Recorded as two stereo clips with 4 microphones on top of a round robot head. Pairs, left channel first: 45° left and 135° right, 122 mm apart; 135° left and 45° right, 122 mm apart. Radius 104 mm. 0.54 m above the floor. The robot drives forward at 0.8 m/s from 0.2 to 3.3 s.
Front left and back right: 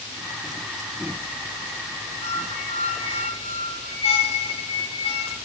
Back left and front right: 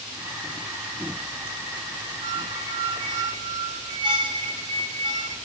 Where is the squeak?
5° left, 5.5 m; by 5.4 s 10° left, 4.5 m.